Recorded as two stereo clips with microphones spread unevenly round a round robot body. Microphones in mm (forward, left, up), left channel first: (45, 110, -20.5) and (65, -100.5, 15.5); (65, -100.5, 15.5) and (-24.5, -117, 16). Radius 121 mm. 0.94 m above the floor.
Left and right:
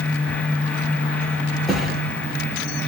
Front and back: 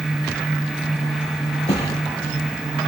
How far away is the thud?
About 4.5 m.